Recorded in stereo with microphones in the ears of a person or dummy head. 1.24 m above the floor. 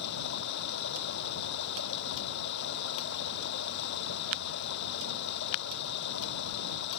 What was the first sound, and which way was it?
Running water, 65° left (ahead or behind).